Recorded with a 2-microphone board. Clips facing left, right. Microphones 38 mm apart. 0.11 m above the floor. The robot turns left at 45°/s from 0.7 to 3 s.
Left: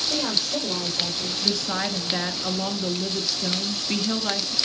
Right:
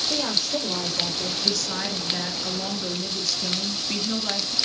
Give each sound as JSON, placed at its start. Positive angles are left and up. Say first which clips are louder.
{"t": 0.1, "sound": "a woman speaking", "louder": "left 1 dB", "side_deg": -20, "distance_m": 4.0}
{"t": 1.4, "sound": "a woman speaking", "louder": "left 4 dB", "side_deg": 20, "distance_m": 1.1}